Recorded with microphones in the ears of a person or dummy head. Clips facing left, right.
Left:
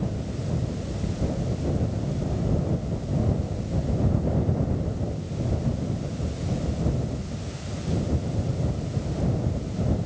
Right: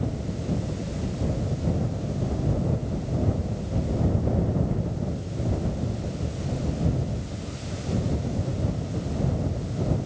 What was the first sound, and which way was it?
Only background noise.